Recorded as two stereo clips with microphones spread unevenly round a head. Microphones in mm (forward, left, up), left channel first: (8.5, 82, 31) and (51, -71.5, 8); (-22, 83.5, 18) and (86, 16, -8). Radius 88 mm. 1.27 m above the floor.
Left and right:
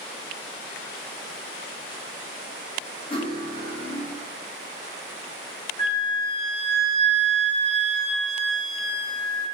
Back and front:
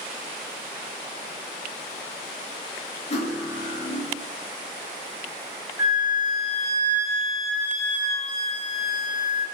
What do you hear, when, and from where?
3.1 s cutlery clinking: 160° left, 0.5 m
5.8 s a flute: 55° left, 1.6 m